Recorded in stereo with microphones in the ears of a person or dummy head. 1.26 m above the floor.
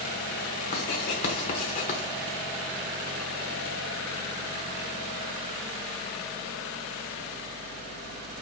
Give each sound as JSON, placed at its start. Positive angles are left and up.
{"t": 0.7, "sound": "writing", "side_deg": 30, "distance_m": 1.0}